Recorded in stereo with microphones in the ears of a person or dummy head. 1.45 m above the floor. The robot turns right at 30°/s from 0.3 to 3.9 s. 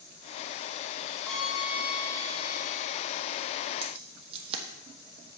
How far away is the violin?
About 2.5 m.